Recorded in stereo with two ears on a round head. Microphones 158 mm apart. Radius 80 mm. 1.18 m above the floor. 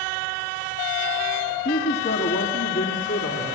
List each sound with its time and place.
1.6 s a man speaking: 55° left (ahead or behind), 1.9 m; by 3.6 s 80° left, 3.5 m